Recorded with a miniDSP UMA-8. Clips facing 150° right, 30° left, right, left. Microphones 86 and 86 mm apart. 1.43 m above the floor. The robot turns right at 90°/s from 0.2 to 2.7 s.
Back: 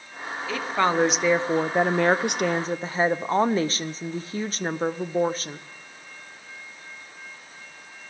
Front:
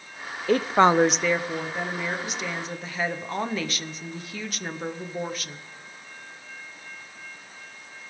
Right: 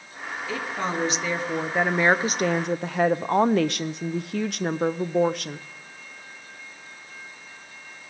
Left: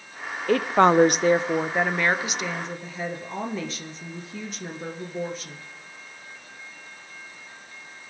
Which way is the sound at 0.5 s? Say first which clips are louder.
Front 5 dB, left 12 dB; 65° left.